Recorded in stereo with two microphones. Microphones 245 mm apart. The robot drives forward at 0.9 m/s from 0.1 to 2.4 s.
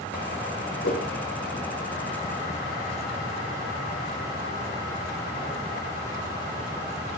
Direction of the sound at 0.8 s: 55° left (ahead or behind).